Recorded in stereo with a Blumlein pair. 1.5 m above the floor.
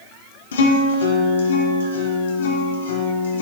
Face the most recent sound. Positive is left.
turn(degrees=65)